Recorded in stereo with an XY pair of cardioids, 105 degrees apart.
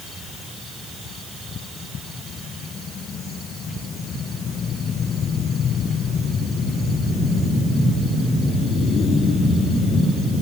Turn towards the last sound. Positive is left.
No sound to turn to.